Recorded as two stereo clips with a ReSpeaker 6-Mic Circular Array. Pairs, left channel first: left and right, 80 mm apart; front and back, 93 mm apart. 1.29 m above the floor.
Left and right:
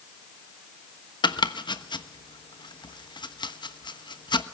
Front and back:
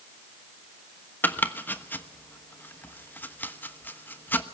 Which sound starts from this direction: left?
Chopping, at 1.2 s.